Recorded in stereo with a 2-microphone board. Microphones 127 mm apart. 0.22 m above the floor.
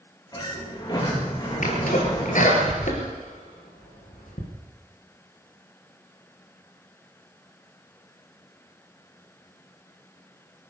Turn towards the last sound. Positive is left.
turn(degrees=70)  # may be behind; listen again after turning